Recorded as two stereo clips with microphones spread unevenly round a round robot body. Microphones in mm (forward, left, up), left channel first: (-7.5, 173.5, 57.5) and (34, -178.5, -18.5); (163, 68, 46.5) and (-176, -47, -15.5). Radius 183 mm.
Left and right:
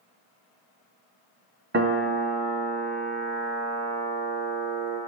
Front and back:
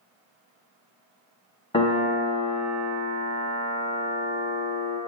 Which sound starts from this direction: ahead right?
A piano, at 1.7 s.